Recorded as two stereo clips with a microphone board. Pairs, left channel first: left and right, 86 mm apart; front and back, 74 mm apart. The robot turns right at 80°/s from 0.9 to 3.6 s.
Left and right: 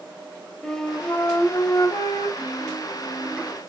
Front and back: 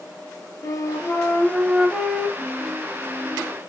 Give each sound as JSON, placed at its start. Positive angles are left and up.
{"t": 0.6, "sound": "a flute", "azimuth_deg": 10, "distance_m": 0.9}
{"t": 2.4, "sound": "a piano", "azimuth_deg": 85, "distance_m": 4.5}